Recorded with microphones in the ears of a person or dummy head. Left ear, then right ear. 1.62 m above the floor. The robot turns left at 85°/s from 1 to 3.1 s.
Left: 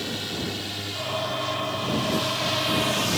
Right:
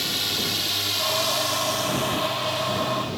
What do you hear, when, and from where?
0.0 s a drone: 40° right (ahead or behind); by 3.2 s 55° left (ahead or behind)